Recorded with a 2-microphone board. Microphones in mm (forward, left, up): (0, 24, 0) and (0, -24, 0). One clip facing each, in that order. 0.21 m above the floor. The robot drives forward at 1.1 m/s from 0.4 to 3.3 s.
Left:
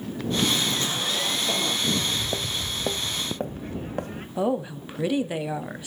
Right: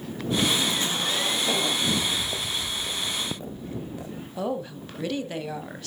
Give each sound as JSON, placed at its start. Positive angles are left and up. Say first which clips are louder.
{"t": 0.5, "sound": "a zipper", "louder": "even", "side_deg": -20, "distance_m": 4.0}
{"t": 1.9, "sound": "footsteps", "louder": "even", "side_deg": 5, "distance_m": 1.3}
{"t": 4.4, "sound": "a woman speaking", "louder": "left 4 dB", "side_deg": 15, "distance_m": 1.0}